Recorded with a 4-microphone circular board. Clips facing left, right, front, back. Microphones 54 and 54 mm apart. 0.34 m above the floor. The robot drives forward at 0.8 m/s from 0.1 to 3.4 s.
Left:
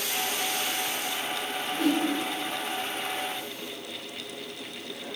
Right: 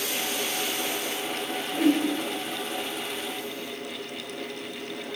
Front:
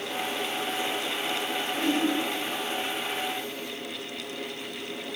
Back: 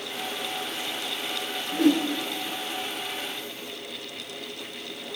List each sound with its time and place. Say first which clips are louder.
1.7 s a whoosh: right 3 dB, back 7 dB; 175° right, 3 m